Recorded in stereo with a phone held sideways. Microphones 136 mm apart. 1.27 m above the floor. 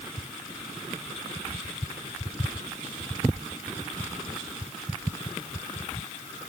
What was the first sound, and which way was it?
Only background noise.